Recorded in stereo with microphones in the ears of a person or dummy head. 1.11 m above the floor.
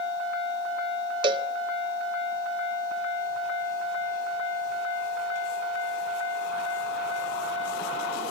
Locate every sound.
1.2 s a cowbell: 30° right (ahead or behind), 0.7 m